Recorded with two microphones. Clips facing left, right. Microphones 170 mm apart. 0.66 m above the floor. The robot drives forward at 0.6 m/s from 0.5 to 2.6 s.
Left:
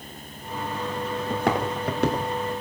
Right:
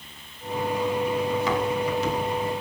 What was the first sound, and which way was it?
Footsteps, 55° left (ahead or behind).